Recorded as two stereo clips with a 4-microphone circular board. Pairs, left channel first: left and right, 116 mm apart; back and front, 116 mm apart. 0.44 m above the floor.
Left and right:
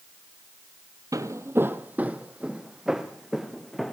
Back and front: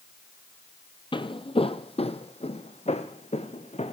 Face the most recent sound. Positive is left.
turn(degrees=180)